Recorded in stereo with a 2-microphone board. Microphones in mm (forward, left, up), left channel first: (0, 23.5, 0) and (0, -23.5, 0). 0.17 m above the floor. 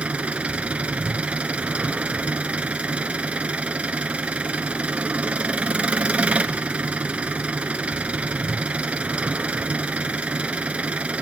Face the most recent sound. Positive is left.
turn(degrees=-25)  # may be behind; listen again after turning